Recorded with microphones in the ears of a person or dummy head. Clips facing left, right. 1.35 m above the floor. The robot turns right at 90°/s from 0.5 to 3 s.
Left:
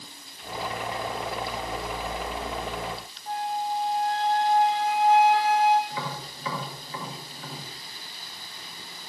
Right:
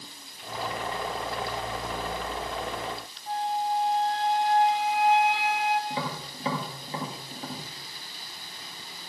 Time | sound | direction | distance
3.3 | a flute | 40° left (ahead or behind) | 1.5 m
5.9 | tapping | 30° right (ahead or behind) | 2 m